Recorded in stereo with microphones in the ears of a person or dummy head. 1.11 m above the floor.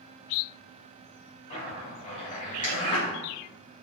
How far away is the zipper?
About 2.5 m.